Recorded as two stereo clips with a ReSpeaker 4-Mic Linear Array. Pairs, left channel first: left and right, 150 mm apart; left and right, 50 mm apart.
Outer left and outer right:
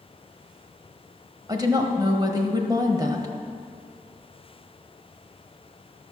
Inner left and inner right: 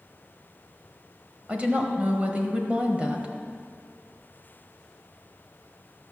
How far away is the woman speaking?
About 1.3 m.